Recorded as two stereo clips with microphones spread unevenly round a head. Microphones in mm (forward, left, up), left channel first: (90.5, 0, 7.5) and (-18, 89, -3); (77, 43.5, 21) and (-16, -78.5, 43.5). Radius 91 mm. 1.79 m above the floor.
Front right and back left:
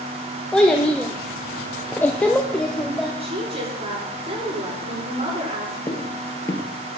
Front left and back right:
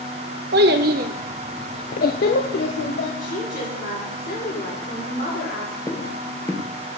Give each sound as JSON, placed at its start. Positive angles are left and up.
{"t": 0.5, "sound": "a child speaking", "azimuth_deg": -125, "distance_m": 1.8}
{"t": 3.2, "sound": "a woman speaking", "azimuth_deg": 95, "distance_m": 7.0}
{"t": 5.9, "sound": "footsteps", "azimuth_deg": -20, "distance_m": 1.9}